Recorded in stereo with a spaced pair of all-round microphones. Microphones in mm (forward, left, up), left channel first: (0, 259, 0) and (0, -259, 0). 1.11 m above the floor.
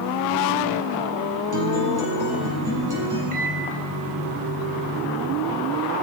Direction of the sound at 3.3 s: 70° right (ahead or behind).